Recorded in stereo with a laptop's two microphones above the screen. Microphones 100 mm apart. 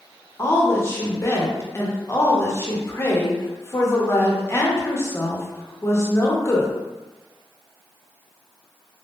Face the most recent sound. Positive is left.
turn(degrees=25)  # may be behind; listen again after turning